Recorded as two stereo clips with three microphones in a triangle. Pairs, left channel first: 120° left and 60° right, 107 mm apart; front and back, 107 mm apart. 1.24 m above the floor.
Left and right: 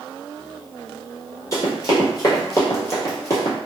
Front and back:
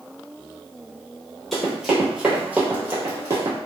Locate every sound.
1.5 s running footsteps: 85° left, 1.5 m; by 3.6 s 165° left, 1.4 m